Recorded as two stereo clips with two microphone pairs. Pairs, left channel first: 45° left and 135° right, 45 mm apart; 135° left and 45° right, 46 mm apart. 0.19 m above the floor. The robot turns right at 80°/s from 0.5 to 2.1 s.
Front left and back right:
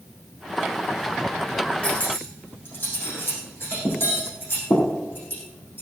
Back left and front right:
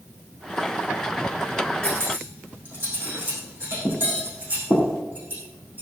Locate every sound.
1.8 s cutlery clinking: 20° right, 6.5 m; by 5.8 s 5° left, 6.5 m